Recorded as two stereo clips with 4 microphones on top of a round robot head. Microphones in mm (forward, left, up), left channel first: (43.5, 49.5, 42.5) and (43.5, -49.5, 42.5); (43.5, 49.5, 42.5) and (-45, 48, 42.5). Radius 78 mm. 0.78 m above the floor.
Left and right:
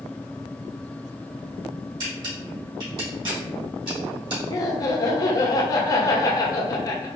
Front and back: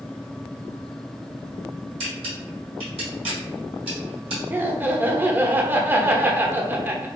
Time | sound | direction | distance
2.0 | a camera shutter | 145° right | 1.6 m
4.5 | laughter | 125° left | 0.8 m